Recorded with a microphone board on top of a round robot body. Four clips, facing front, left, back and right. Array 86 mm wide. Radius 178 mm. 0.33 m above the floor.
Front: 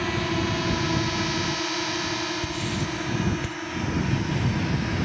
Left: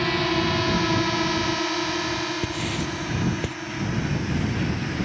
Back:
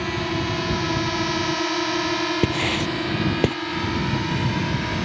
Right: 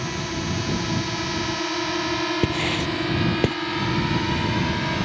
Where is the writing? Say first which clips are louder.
Right 4 dB, back 6 dB; 150° right.